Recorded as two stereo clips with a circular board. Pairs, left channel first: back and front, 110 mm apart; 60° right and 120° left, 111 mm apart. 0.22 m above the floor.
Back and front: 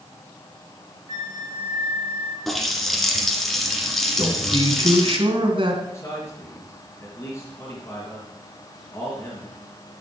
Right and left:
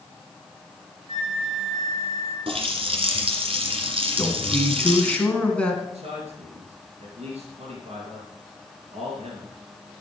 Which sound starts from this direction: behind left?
A man speaking, at 5.9 s.